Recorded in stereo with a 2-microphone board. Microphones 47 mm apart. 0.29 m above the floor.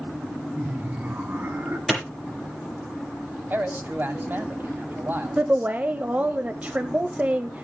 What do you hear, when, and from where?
0.6 s laughter: 30° right (ahead or behind), 3 m; by 1.8 s 45° right (ahead or behind), 3 m
1.9 s a clap: centre (ahead or behind), 6.5 m
3.5 s a man speaking: 45° right (ahead or behind), 2 m
5.4 s a woman speaking: 30° right (ahead or behind), 1.0 m